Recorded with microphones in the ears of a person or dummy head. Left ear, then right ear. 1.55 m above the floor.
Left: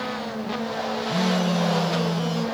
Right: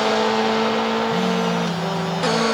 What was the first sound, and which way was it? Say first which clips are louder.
A phone buzzing: right 4 dB; 5° left (ahead or behind).